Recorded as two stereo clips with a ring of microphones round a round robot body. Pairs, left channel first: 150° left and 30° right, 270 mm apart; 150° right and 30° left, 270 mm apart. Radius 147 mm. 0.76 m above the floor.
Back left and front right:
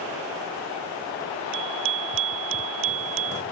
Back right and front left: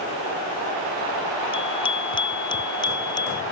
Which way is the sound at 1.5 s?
80° right.